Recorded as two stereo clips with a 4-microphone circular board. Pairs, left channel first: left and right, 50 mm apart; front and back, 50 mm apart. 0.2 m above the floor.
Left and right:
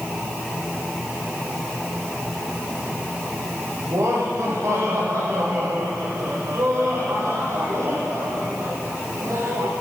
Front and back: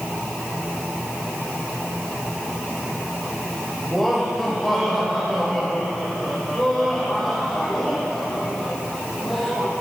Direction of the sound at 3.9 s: 85° right.